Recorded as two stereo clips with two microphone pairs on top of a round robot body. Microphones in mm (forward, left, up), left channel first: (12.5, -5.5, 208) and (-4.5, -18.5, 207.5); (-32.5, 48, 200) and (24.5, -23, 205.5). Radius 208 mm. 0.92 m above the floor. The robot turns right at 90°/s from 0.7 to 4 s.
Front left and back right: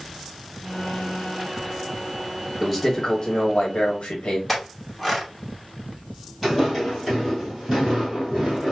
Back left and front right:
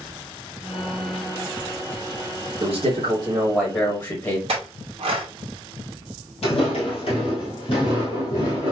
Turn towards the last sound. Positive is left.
turn(degrees=155)